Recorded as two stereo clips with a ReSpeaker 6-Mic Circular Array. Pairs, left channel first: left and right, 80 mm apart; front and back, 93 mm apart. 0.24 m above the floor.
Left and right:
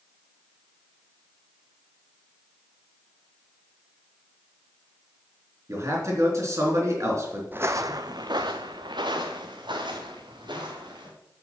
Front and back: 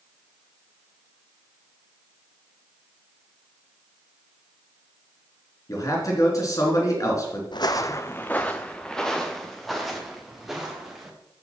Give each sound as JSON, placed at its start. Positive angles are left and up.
{"t": 5.7, "sound": "a man speaking", "azimuth_deg": -45, "distance_m": 3.5}
{"t": 7.5, "sound": "footsteps", "azimuth_deg": -25, "distance_m": 0.7}